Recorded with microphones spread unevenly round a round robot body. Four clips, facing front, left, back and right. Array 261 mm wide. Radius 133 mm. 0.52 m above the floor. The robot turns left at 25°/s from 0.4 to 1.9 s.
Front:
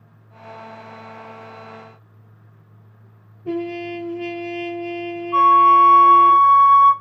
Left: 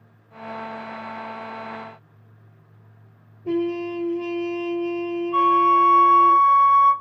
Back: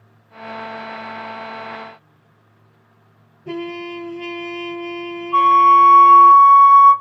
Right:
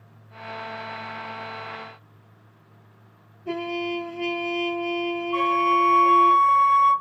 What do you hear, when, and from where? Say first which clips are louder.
3.5 s a trumpet: left 4 dB, front 2 dB; 60° left, 1.4 m
5.3 s a flute: left 5 dB, back 1 dB; 15° left, 1.0 m